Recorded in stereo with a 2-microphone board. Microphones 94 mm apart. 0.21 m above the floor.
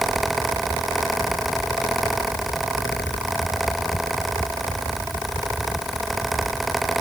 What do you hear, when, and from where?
Only background noise.